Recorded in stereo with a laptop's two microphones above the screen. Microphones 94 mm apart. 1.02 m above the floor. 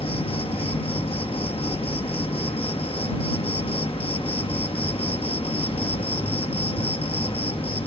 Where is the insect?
80° left.